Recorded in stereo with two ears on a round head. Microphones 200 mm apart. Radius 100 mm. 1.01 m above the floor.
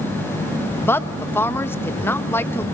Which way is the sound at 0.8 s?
10° left (ahead or behind).